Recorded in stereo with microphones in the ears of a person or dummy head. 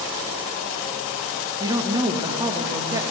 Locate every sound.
1.6 s a woman speaking: 15° right (ahead or behind), 1.6 m